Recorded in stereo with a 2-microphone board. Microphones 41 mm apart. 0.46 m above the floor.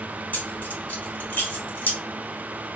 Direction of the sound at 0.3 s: 55° left (ahead or behind).